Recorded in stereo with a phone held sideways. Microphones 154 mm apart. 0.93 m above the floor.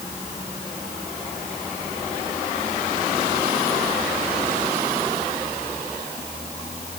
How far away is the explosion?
I don't hear an explosion.